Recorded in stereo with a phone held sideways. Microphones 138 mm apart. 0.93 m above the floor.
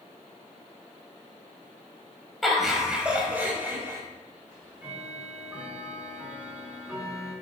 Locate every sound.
2.4 s laughter: centre (ahead or behind), 4 m; by 4.0 s 20° right (ahead or behind), 4.5 m
4.5 s ticking: 10° right (ahead or behind), 6.5 m